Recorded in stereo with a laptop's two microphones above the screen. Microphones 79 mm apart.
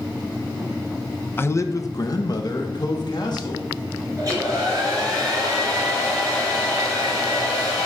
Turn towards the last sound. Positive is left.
turn(degrees=-40)  # may be behind; listen again after turning